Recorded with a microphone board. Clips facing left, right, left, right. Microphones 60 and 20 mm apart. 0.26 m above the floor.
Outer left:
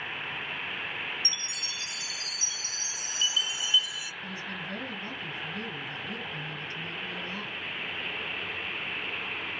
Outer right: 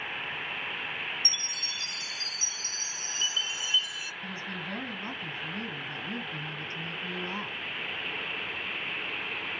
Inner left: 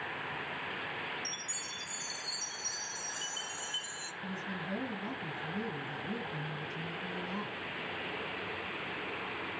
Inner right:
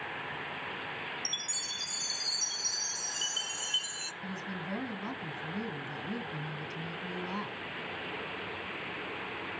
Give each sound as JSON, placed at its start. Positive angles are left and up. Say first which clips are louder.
{"t": 1.2, "sound": "a chime", "louder": "even, inner right 5 dB", "side_deg": -35, "distance_m": 0.5}
{"t": 4.2, "sound": "a woman speaking", "louder": "outer right 1 dB, even", "side_deg": -35, "distance_m": 1.9}